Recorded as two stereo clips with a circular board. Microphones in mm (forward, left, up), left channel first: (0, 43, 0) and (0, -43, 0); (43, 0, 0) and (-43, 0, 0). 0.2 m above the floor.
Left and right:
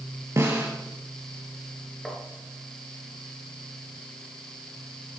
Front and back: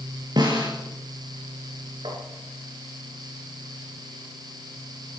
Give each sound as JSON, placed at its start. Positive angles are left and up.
{"t": 0.4, "sound": "a snare drum", "azimuth_deg": -145, "distance_m": 4.5}
{"t": 2.0, "sound": "tapping", "azimuth_deg": 180, "distance_m": 3.0}